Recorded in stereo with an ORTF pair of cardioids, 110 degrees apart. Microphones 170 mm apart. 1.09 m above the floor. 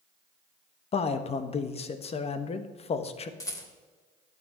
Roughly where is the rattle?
Ahead.